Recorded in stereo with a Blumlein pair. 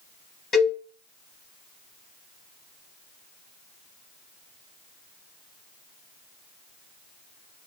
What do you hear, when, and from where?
0.5 s a cowbell: 20° left, 0.9 m